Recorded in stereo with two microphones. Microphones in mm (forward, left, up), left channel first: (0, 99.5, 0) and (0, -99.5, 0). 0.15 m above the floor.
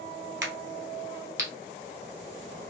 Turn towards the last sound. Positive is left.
turn(degrees=-70)  # may be behind; listen again after turning